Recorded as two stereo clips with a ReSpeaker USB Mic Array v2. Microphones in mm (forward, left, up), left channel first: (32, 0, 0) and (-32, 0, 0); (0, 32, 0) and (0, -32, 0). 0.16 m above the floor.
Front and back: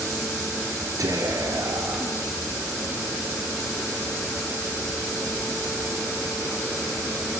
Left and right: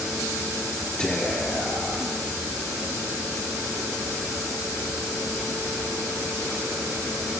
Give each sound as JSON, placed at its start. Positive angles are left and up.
{"t": 1.0, "sound": "whispering", "azimuth_deg": 170, "distance_m": 3.5}